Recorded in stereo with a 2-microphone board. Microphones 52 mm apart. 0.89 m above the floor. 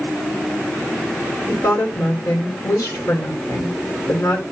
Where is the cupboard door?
No cupboard door in this recording.